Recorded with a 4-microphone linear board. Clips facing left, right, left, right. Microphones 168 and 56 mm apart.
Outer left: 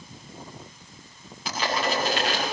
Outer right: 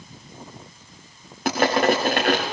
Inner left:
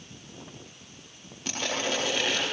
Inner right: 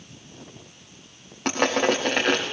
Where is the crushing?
65° right (ahead or behind), 4.5 m.